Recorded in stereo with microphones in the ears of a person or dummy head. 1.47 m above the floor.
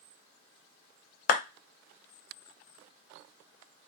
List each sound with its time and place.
1.3 s a clap: 50° left (ahead or behind), 0.9 m